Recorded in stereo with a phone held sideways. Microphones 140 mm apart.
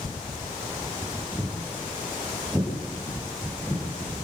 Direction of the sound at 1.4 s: 15° right (ahead or behind).